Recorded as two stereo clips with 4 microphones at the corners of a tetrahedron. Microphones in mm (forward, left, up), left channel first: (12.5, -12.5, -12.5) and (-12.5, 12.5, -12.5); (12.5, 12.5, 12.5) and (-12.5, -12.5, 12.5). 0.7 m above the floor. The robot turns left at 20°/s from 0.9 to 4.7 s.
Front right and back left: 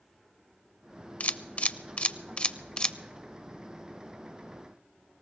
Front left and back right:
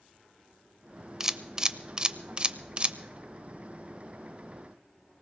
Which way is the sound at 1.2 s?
70° right.